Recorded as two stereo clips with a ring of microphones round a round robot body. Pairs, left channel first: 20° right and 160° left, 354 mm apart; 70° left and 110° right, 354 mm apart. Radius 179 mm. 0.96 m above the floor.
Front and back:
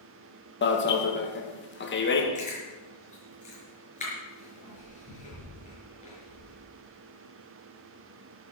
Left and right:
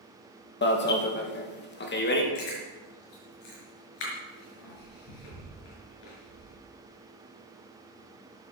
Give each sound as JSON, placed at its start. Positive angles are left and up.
{"t": 0.6, "sound": "an alarm", "azimuth_deg": 20, "distance_m": 1.9}
{"t": 2.4, "sound": "chewing", "azimuth_deg": 50, "distance_m": 5.5}